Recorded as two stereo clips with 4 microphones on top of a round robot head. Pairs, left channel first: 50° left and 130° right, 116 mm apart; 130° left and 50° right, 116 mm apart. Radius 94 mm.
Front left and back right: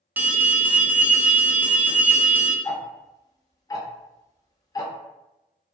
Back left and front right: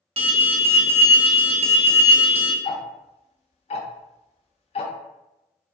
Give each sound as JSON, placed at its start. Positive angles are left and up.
{"t": 0.2, "sound": "an alarm", "azimuth_deg": -55, "distance_m": 0.5}
{"t": 2.6, "sound": "ticking", "azimuth_deg": 105, "distance_m": 0.5}